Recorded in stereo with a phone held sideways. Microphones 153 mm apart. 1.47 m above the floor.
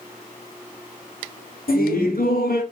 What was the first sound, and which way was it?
Laughter, 70° left (ahead or behind).